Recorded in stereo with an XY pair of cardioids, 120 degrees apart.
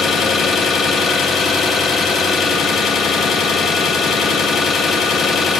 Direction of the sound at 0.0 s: 50° left.